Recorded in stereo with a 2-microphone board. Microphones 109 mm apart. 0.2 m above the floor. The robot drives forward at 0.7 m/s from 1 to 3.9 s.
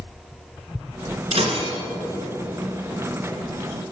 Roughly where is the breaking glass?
Right.